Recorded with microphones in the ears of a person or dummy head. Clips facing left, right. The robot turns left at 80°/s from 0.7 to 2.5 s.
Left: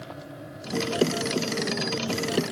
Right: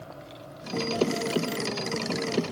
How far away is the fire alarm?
I don't hear a fire alarm.